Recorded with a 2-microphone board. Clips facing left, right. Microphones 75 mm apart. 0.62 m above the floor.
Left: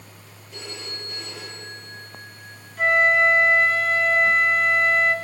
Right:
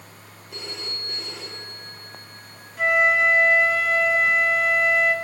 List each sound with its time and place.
0.5 s a phone ringing: 85° right, 7.5 m
2.8 s a flute: centre (ahead or behind), 3 m